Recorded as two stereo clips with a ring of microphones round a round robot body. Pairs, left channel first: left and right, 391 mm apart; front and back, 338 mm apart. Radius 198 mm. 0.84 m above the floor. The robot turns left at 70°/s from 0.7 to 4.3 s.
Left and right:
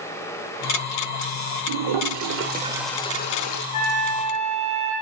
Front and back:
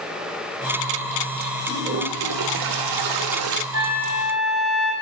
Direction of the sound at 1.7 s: 95° right.